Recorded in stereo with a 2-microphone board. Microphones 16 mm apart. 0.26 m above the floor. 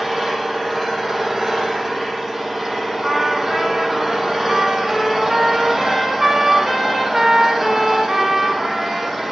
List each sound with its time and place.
0.0 s an engine running: 20° right (ahead or behind), 8 m
3.0 s a trumpet: 30° right (ahead or behind), 5 m